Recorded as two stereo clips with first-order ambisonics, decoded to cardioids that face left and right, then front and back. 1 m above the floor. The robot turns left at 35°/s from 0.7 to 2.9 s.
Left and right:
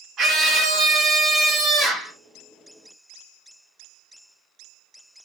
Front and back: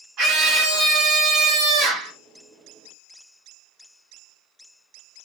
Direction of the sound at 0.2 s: 145° right.